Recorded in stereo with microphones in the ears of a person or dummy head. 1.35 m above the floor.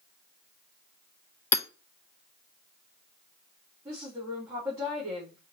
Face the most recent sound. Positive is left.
turn(degrees=-10)  # may be behind; listen again after turning